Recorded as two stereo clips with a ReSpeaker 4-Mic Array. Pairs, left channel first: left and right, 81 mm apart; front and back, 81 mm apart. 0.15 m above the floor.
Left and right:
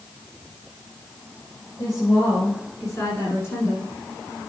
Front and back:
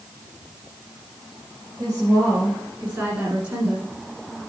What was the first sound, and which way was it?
A woman speaking, 130° left.